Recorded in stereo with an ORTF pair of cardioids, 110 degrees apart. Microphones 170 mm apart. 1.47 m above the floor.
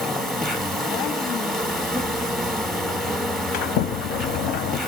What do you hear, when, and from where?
0.0 s an insect: straight ahead, 0.7 m
3.5 s a sliding door: 65° left, 0.6 m